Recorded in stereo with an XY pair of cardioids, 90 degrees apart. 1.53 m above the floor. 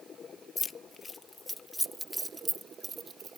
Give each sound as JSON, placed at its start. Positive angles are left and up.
{"t": 0.6, "sound": "keys jangling", "azimuth_deg": 45}